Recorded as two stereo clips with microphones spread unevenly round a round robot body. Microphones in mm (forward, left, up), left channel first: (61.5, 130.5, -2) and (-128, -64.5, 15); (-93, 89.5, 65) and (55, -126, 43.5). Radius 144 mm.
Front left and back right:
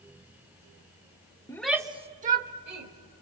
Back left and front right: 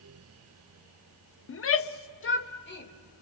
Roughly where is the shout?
Behind left.